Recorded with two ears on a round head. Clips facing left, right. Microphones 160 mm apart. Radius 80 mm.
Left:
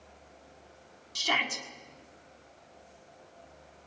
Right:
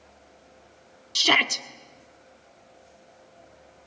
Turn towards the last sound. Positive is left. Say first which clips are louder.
# right 7 dB
turn(degrees=-70)  # may be behind; listen again after turning